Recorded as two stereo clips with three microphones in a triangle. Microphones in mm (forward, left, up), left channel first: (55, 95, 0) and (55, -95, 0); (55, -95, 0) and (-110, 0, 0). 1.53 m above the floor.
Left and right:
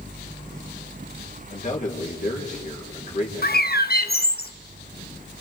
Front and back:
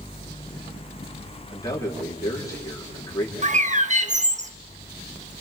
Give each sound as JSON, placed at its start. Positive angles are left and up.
{"t": 1.5, "sound": "a man speaking", "azimuth_deg": 40, "distance_m": 4.0}
{"t": 3.4, "sound": "a bird", "azimuth_deg": 110, "distance_m": 1.2}